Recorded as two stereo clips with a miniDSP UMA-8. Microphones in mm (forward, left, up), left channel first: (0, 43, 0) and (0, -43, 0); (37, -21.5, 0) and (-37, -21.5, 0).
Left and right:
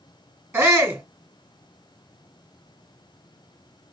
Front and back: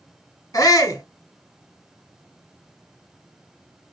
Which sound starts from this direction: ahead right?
A shout, at 0.5 s.